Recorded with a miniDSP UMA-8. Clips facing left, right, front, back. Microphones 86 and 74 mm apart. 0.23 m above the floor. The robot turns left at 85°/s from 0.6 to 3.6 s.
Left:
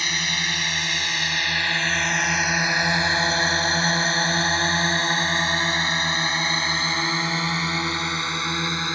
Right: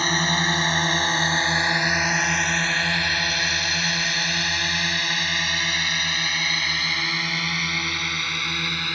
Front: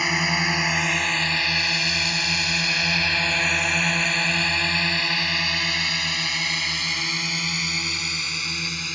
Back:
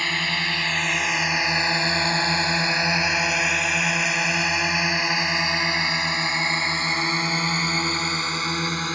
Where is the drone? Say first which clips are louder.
Right 5 dB, front 2 dB; 70° right; by 9.0 s 150° left.